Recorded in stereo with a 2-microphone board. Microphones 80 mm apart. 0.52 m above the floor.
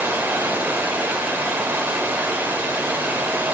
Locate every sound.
0.0 s running water: 25° right (ahead or behind), 0.9 m